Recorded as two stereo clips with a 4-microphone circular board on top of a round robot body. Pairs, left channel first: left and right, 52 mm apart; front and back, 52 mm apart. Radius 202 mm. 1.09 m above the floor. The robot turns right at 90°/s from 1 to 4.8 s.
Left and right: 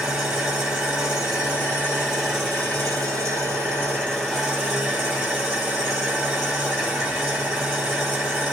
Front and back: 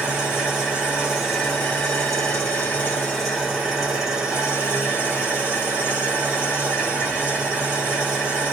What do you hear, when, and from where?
0.0 s an engine running: 125° right, 0.9 m; by 8.5 s 140° right, 0.9 m